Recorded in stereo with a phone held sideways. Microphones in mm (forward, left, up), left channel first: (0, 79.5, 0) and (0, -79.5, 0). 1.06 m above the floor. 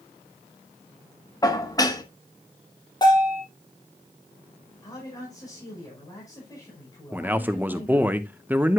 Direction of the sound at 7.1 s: 10° right (ahead or behind).